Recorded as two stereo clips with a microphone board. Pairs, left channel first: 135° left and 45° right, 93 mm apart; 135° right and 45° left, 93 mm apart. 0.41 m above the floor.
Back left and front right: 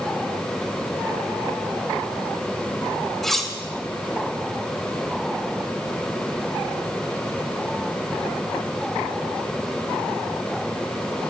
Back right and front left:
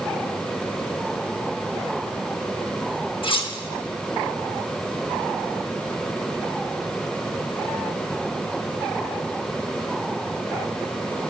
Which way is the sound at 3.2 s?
140° right.